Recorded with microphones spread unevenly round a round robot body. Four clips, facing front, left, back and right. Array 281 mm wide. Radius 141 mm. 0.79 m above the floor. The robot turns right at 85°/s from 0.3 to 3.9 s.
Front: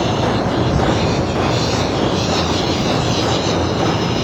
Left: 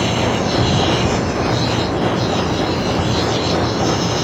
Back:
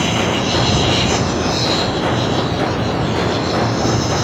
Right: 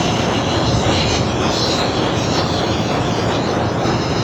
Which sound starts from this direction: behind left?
An insect, at 0.0 s.